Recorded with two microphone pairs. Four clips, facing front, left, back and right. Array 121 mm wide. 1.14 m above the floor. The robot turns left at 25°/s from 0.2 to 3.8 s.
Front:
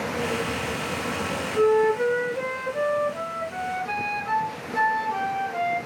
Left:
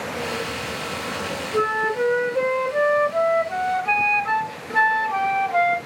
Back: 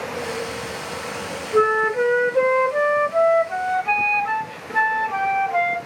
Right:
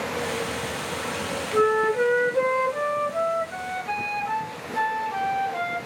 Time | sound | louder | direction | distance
1.5 | a flute | right 2 dB, back 1 dB | 170° right | 1.6 m